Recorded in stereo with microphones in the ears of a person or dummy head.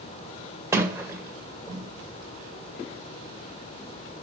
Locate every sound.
0.7 s a sliding door: 20° right (ahead or behind), 1.9 m